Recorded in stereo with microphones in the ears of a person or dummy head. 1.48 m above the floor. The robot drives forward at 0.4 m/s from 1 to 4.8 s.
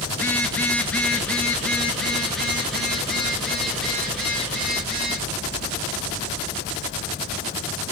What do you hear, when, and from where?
0.1 s a phone buzzing: 5° left (ahead or behind), 0.8 m; by 5.2 s centre (ahead or behind), 2.5 m